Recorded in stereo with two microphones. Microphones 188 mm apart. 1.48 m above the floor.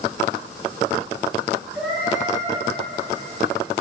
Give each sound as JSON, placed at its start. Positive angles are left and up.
{"t": 1.7, "sound": "a cat meowing", "side_deg": -5, "distance_m": 5.5}